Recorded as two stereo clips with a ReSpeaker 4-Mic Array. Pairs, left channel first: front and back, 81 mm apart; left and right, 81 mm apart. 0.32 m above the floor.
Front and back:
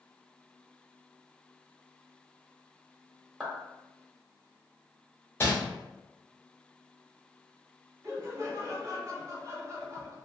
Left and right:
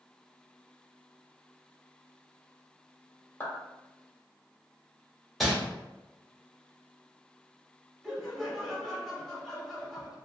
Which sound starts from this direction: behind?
Laughter, at 8.0 s.